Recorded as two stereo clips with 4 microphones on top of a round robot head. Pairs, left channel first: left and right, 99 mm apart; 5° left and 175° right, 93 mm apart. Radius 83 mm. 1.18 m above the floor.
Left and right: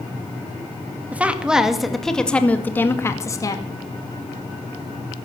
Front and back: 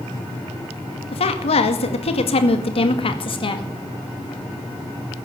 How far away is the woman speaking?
About 2 m.